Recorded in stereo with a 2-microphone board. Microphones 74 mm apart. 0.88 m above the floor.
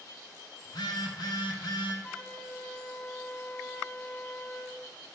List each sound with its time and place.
0.7 s a phone buzzing: 80° left, 2.5 m
2.0 s a flute: 20° left (ahead or behind), 0.9 m